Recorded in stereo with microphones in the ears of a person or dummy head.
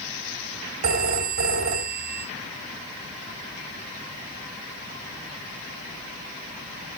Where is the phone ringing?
50° right (ahead or behind), 2.5 m.